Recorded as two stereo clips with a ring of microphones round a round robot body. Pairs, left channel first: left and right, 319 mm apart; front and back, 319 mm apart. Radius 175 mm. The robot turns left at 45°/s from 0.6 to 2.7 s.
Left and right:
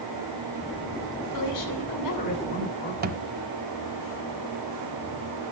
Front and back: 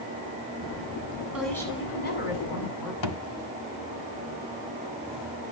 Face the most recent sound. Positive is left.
turn(degrees=-30)